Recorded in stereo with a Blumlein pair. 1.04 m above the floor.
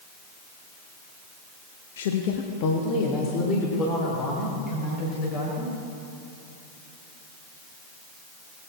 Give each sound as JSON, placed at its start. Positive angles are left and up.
{"t": 2.0, "sound": "a woman speaking", "azimuth_deg": 60, "distance_m": 0.7}